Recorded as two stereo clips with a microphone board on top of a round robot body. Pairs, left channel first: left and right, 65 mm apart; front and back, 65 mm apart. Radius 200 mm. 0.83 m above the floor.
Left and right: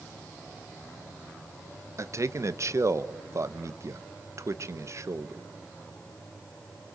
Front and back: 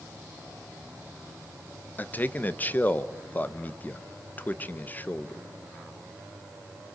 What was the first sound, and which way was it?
A man speaking, 60° right.